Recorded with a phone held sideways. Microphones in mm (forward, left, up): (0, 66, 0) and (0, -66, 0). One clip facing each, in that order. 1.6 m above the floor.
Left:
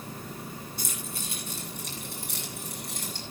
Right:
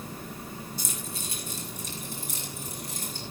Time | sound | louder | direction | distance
0.8 | keys jangling | even | 55° left (ahead or behind) | 8 m